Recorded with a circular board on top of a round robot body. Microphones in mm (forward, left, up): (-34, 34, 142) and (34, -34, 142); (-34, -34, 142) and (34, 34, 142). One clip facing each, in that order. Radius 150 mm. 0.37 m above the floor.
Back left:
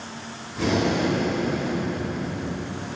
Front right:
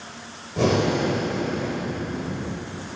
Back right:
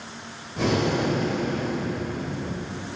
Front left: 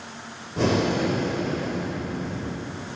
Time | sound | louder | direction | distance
0.6 | breathing | front right 2 dB, front left 1 dB | 5° right | 3 m